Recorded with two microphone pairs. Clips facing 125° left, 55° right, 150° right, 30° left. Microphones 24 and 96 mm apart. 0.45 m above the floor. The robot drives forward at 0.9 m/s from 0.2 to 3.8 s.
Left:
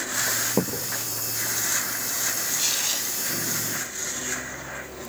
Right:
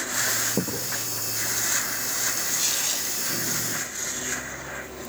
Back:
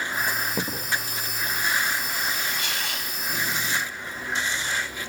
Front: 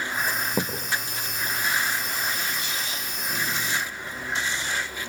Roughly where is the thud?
Left.